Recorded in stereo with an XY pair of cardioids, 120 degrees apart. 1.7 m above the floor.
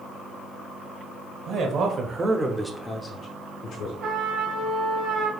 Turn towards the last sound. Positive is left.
turn(degrees=-60)